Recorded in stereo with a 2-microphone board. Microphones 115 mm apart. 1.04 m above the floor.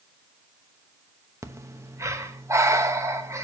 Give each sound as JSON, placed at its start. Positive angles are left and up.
{"t": 1.4, "sound": "breathing", "side_deg": -25, "distance_m": 1.0}